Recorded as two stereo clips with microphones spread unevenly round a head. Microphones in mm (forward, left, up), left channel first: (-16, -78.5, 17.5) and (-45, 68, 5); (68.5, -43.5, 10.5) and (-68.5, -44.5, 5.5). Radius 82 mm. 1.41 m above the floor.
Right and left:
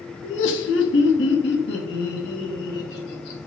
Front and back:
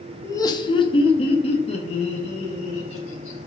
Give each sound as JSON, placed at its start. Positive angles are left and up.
{"t": 0.2, "sound": "laughter", "azimuth_deg": -70, "distance_m": 0.6}